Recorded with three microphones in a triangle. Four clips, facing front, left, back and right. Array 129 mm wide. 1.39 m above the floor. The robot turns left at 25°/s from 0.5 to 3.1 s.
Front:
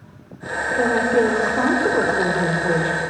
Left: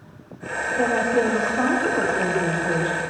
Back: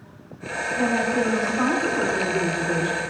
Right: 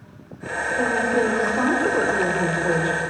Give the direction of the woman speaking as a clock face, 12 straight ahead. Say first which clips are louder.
Left 1 dB, front 5 dB; 12 o'clock.